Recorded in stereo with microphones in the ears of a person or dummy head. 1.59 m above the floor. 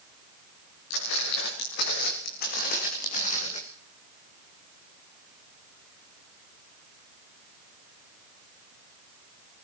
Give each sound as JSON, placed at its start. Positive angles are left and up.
{"t": 0.9, "sound": "footsteps", "side_deg": 75, "distance_m": 6.0}